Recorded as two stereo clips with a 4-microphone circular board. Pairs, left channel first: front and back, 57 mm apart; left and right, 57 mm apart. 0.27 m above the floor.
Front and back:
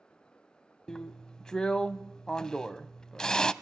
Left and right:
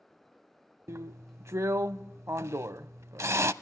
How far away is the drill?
About 0.5 m.